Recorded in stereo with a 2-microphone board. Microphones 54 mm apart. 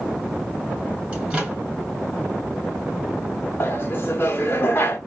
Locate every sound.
1.1 s a microwave: 15° right (ahead or behind), 3.5 m
3.6 s laughter: 45° left (ahead or behind), 1.0 m